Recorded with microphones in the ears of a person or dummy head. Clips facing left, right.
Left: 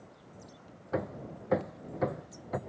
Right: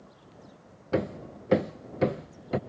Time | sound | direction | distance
0.9 | hammering | 40° right (ahead or behind) | ?